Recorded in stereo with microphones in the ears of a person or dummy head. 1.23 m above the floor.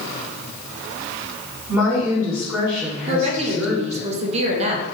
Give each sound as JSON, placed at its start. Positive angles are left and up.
{"t": 1.7, "sound": "a woman speaking", "side_deg": -5, "distance_m": 1.6}
{"t": 3.1, "sound": "a woman speaking", "side_deg": -35, "distance_m": 0.7}